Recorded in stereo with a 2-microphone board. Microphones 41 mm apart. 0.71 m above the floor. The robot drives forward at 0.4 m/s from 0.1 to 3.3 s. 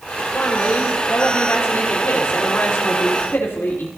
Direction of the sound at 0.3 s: 60° left (ahead or behind).